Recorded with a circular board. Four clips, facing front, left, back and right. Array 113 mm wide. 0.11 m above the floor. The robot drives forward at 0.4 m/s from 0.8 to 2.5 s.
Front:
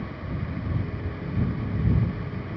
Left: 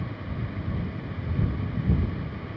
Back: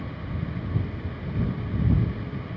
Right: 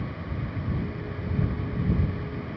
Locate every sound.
Only background noise.